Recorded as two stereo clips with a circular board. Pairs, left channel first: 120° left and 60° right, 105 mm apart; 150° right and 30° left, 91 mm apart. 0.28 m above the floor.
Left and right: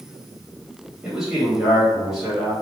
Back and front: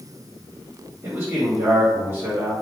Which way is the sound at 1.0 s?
20° left.